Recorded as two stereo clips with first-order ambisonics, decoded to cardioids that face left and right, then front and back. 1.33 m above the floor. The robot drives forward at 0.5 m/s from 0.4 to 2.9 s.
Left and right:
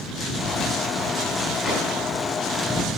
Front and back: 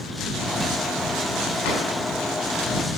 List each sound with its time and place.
1.6 s a drawer: 5° left, 5.5 m